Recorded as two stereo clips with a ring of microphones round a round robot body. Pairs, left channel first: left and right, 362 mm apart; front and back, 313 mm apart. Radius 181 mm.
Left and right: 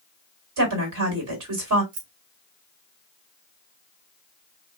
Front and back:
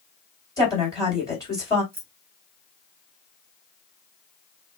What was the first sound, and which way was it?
A woman speaking, 75° right.